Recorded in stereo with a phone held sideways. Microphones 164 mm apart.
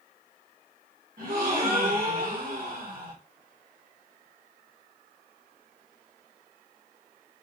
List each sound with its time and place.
1.2 s a gasp: 65° right (ahead or behind), 1.7 m